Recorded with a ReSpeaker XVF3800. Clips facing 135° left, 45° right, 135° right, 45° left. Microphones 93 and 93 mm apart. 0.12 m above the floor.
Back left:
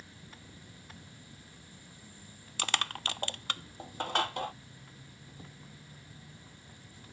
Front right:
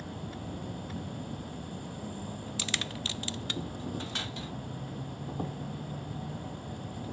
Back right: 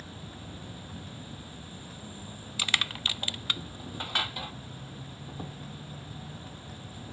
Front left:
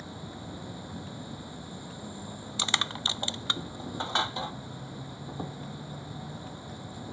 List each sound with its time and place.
0.0 s an insect: 25° right
2.6 s crushing: 110° left